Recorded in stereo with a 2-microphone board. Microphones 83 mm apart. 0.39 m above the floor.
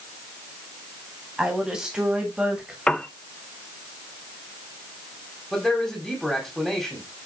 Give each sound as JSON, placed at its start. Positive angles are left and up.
{"t": 1.4, "sound": "a woman speaking", "side_deg": -10, "distance_m": 3.0}
{"t": 2.9, "sound": "a piano", "side_deg": 10, "distance_m": 0.5}
{"t": 5.5, "sound": "a man speaking", "side_deg": 0, "distance_m": 2.5}